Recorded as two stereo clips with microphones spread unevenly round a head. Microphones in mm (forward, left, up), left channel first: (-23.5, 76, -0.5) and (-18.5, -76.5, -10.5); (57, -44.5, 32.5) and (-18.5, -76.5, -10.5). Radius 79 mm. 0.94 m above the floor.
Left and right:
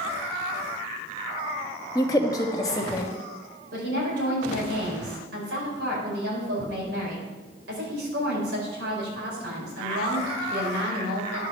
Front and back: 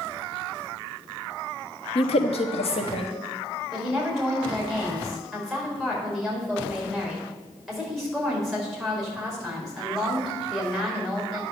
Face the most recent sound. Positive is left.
turn(degrees=-70)